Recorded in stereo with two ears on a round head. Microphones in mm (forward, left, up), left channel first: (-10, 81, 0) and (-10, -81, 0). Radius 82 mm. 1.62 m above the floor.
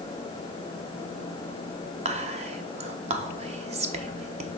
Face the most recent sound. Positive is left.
turn(degrees=-40)  # may be behind; listen again after turning